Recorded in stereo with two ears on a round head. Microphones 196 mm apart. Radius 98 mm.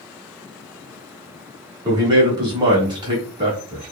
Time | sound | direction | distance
1.9 | a man speaking | 20° right (ahead or behind) | 1.2 m